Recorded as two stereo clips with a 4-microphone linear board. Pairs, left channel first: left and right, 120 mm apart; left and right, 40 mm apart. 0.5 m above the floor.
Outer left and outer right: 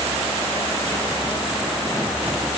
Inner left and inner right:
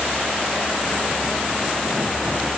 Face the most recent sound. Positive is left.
No sound to turn to.